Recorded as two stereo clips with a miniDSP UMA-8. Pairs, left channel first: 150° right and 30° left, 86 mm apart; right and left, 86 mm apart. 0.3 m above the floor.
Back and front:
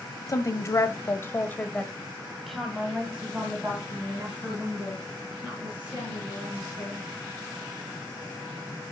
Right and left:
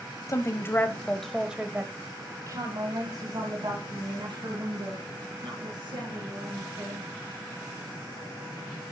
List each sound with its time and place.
0.3 s a woman speaking: 120° right, 1.3 m; by 7.1 s 95° left, 4.5 m